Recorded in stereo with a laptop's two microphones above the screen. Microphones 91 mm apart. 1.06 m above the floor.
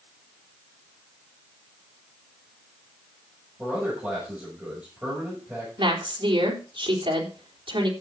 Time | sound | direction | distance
3.6 | a man speaking | 20° right (ahead or behind) | 6 m
5.8 | a woman speaking | 80° right | 4 m